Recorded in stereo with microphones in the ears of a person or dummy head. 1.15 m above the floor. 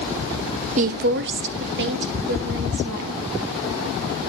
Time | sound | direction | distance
0.8 | a woman speaking | 35° right (ahead or behind) | 0.5 m